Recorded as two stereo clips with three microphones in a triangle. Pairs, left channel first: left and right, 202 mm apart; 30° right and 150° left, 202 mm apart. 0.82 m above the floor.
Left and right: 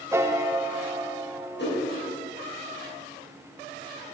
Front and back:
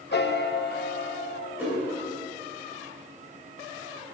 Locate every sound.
0.1 s a piano: 15° right, 0.6 m
1.6 s a whoosh: 70° left, 4 m